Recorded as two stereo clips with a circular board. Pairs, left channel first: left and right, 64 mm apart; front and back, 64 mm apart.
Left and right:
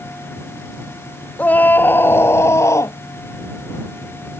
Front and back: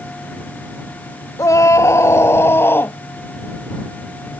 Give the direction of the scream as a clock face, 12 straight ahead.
11 o'clock.